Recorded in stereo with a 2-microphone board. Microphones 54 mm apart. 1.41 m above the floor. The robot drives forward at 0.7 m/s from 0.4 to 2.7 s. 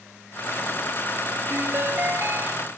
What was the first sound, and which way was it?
A ringtone, 40° right (ahead or behind).